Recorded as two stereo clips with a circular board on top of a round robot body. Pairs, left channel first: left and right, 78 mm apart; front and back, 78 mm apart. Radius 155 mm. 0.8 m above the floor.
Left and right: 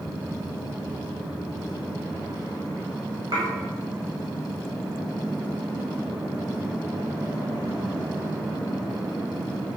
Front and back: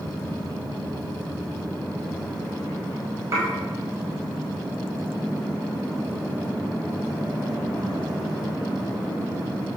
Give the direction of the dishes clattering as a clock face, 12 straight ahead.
4 o'clock.